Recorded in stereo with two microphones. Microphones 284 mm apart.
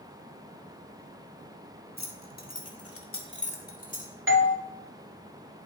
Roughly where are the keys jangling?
Left.